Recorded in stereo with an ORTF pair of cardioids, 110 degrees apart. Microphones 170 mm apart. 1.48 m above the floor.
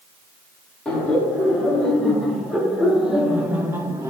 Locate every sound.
0.8 s laughter: 5° left, 4 m; by 4.1 s 20° right, 1.3 m